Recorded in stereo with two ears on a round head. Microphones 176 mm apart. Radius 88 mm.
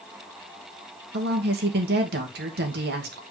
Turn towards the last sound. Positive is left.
turn(degrees=-55)  # may be behind; listen again after turning